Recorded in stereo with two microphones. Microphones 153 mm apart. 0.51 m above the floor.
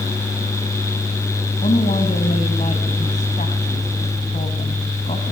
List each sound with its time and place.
1.6 s a woman speaking: 50° left (ahead or behind), 3 m